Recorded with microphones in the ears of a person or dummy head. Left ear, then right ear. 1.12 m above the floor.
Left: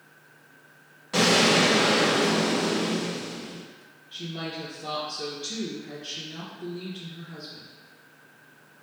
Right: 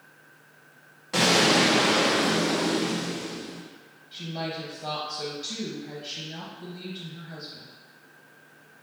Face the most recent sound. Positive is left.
turn(degrees=-10)  # may be behind; listen again after turning